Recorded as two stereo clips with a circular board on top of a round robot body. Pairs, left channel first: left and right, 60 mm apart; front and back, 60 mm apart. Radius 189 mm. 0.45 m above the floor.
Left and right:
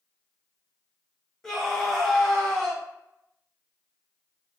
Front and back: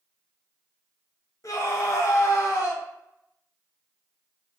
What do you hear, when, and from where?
1.4 s a scream: 10° left, 1.6 m